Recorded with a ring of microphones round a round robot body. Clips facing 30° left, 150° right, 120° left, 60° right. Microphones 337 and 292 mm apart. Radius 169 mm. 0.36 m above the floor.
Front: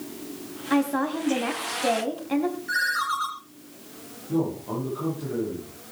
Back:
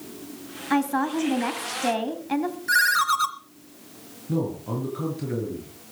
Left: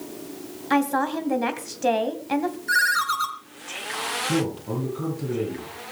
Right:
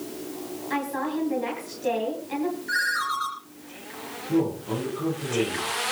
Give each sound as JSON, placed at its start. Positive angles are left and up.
{"t": 0.7, "sound": "a woman speaking", "azimuth_deg": 135, "distance_m": 2.5}
{"t": 2.7, "sound": "a ringtone", "azimuth_deg": 170, "distance_m": 2.0}
{"t": 4.3, "sound": "a man speaking", "azimuth_deg": 175, "distance_m": 8.0}